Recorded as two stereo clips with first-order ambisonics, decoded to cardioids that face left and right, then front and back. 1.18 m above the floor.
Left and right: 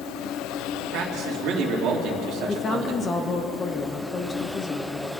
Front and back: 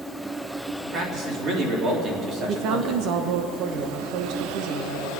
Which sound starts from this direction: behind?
A woman speaking, at 2.5 s.